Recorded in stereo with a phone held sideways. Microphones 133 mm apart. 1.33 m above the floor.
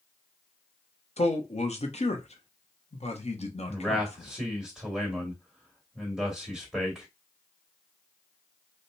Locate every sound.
1.2 s a man speaking: 55° left (ahead or behind), 1.1 m
3.7 s a man speaking: centre (ahead or behind), 2.5 m